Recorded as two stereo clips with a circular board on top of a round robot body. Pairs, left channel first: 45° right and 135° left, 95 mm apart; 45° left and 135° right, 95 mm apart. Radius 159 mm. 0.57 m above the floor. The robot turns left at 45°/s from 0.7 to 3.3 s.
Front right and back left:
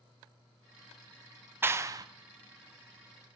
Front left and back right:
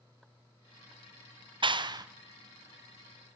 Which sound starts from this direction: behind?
A clap, at 1.6 s.